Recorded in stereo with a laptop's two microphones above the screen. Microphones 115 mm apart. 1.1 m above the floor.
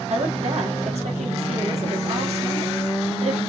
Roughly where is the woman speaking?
Right.